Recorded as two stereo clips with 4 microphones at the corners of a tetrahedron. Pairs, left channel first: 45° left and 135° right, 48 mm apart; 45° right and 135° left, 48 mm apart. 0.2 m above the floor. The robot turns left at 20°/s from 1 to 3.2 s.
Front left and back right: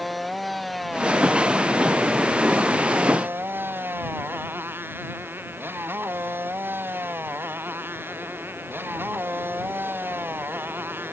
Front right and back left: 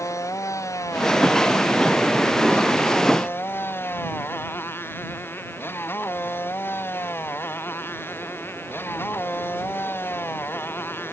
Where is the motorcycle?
45° right; by 11.1 s 90° right.